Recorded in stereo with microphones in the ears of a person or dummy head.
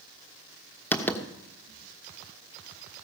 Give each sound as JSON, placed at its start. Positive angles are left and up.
{"t": 0.9, "sound": "writing", "side_deg": 10, "distance_m": 1.1}